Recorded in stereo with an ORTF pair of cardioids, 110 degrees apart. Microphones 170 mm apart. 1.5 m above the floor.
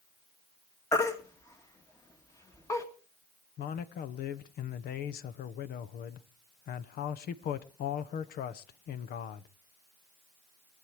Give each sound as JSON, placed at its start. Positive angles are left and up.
{"t": 0.9, "sound": "a baby crying", "azimuth_deg": 15, "distance_m": 1.8}
{"t": 3.6, "sound": "a man speaking", "azimuth_deg": 65, "distance_m": 1.2}